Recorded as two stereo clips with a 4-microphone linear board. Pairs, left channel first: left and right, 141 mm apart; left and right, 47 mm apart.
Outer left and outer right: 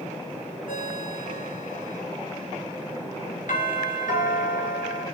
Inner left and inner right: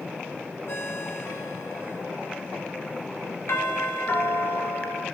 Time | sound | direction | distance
0.7 | a ringtone | 70° left (ahead or behind) | 9.5 m
3.5 | a doorbell | 70° left (ahead or behind) | 4 m